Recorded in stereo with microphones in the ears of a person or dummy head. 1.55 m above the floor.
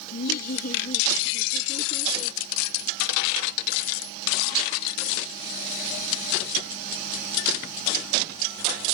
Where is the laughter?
60° left (ahead or behind); by 2.4 s 30° left (ahead or behind).